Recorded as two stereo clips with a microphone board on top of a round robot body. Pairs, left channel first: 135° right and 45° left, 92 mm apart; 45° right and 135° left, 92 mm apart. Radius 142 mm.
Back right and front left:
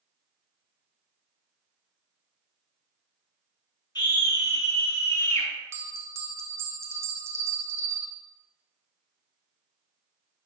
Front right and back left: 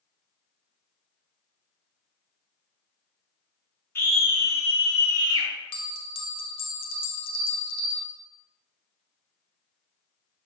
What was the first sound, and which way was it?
A scream, 105° right.